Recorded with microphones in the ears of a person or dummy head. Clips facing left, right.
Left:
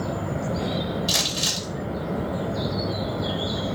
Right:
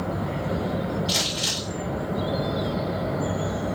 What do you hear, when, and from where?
1.1 s crumpling: 70° left (ahead or behind), 1.6 m